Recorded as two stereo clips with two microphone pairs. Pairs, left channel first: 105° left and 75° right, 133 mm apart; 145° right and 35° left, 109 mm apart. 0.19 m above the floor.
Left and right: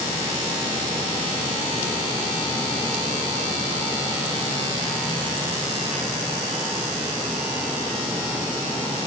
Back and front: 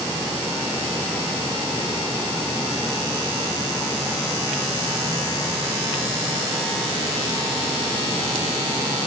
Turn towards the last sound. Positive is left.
No sound to turn to.